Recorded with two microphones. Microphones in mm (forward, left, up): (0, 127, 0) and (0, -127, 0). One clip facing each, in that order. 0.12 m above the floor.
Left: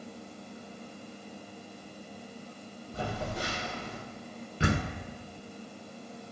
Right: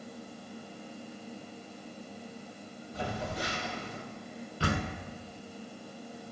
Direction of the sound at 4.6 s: 20° left (ahead or behind).